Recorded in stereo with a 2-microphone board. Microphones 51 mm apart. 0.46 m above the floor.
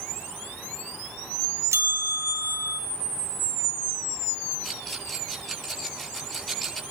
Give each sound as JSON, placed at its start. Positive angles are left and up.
{"t": 1.7, "sound": "a bell", "side_deg": -75, "distance_m": 1.7}
{"t": 4.6, "sound": "a rattle", "side_deg": 5, "distance_m": 8.5}